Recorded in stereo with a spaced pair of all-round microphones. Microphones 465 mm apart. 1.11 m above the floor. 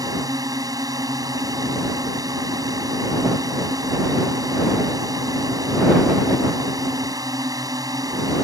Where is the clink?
No clink in this recording.